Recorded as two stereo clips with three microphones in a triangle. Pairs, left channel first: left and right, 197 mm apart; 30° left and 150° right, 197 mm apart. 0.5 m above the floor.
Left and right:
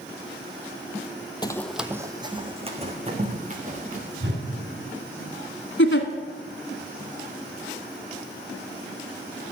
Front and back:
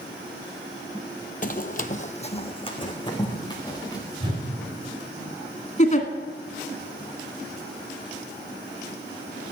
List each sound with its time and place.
1.4 s running footsteps: 35° left, 0.6 m; by 4.1 s 40° right, 3 m
4.2 s a whoosh: 85° right, 3 m
5.8 s a giggle: 80° left, 1.5 m